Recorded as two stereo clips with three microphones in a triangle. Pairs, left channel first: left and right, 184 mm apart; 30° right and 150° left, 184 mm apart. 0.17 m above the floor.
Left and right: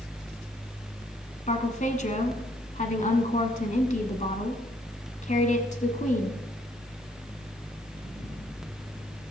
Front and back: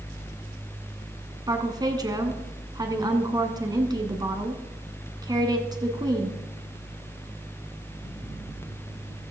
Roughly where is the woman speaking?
Left.